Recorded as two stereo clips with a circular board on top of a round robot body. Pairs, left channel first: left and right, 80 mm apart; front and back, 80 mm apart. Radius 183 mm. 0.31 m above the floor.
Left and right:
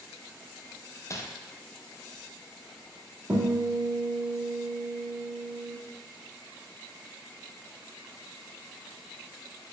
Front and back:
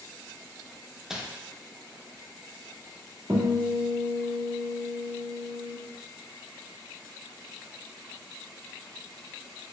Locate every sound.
1.1 s crumpling: 100° left, 0.7 m
3.3 s a guitar: 140° right, 1.5 m